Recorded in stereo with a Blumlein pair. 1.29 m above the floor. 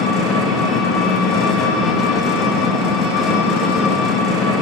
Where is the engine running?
25° left, 1.4 m.